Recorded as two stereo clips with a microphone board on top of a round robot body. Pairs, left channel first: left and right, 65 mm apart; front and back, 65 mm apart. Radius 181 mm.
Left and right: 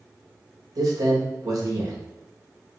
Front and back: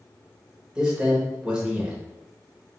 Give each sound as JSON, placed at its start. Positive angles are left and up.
{"t": 0.8, "sound": "a man speaking", "azimuth_deg": -105, "distance_m": 1.7}